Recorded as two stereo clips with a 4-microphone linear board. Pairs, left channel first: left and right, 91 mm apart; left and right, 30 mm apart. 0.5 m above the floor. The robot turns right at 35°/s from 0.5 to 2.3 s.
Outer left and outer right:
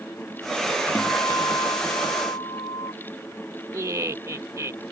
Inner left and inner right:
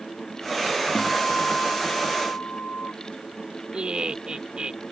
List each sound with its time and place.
0.9 s a guitar: 20° left; by 2.9 s 70° left
3.7 s laughter: 35° right (ahead or behind)